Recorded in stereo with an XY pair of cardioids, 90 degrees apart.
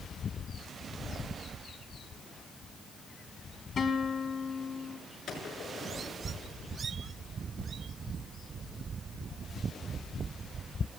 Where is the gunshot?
65° left, 6.5 m.